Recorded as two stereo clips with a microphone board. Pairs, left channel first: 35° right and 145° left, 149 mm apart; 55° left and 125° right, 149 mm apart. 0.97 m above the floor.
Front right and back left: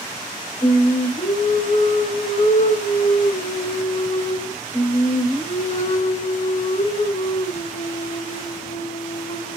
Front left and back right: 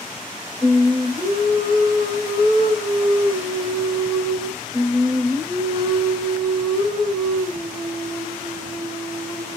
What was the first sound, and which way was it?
Singing, 60° right.